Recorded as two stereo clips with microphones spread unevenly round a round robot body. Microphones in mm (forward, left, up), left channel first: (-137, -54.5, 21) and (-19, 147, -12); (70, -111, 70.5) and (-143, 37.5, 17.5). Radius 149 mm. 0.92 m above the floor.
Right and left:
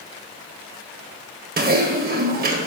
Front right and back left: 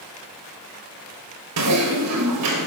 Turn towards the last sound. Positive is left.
turn(degrees=110)